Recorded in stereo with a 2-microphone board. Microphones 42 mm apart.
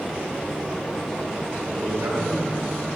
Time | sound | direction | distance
1.7 | a man speaking | 70° right (ahead or behind) | 3 m